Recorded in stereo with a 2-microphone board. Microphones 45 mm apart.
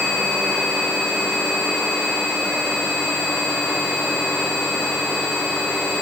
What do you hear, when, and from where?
Only background noise.